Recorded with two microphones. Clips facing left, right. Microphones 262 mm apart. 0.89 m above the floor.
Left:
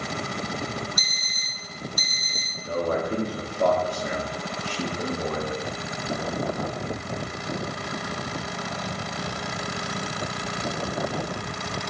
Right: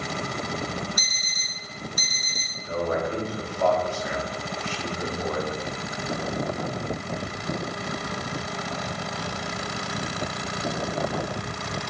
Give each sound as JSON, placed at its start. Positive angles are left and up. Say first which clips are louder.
{"t": 1.0, "sound": "an alarm clock", "louder": "right 1 dB", "side_deg": -60, "distance_m": 0.8}
{"t": 2.6, "sound": "a man speaking", "louder": "left 1 dB", "side_deg": 40, "distance_m": 0.7}